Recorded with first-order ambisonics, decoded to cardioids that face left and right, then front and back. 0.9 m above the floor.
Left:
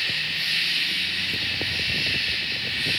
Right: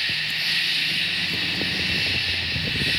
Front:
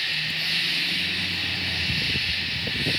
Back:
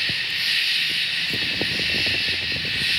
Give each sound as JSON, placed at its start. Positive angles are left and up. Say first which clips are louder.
{"t": 0.0, "sound": "an insect", "louder": "right 1 dB, back 3 dB", "azimuth_deg": 180, "distance_m": 1.2}